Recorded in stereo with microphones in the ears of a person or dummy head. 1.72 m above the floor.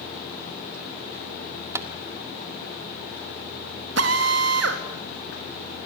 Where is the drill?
70° right (ahead or behind), 3.5 m.